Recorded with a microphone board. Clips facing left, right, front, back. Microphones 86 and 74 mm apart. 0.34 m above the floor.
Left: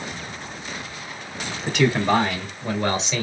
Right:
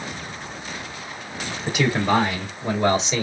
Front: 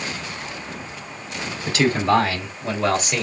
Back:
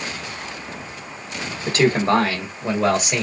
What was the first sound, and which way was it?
A man speaking, 175° right.